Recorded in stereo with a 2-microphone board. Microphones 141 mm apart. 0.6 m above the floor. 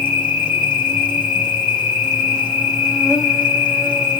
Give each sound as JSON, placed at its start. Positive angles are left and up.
{"t": 0.0, "sound": "an insect", "side_deg": -5, "distance_m": 1.8}